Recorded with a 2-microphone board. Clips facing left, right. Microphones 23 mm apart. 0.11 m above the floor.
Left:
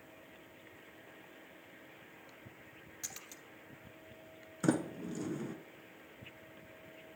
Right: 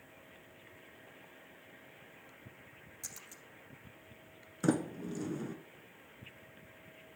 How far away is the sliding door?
About 0.9 m.